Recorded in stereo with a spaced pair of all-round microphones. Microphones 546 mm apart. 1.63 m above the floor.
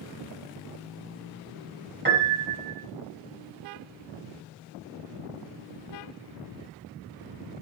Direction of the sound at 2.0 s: 20° right (ahead or behind).